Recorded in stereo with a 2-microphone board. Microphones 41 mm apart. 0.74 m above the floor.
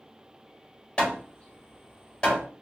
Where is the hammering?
20° left (ahead or behind), 1.5 m.